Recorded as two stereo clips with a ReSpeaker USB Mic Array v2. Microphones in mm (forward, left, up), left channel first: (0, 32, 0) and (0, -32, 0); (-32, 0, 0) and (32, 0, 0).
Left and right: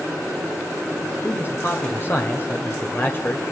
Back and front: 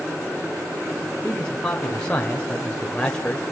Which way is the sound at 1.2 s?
115° left.